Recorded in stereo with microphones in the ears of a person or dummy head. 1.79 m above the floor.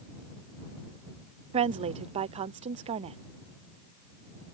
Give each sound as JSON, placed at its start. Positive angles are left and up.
{"t": 1.5, "sound": "a woman speaking", "side_deg": -25}